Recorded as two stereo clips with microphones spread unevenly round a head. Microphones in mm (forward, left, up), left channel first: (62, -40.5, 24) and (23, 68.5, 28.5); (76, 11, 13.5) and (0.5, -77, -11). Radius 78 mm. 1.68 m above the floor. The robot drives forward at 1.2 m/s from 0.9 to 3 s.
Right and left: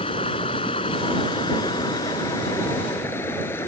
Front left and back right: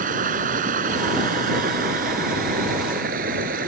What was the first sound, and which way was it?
Running water, 130° right.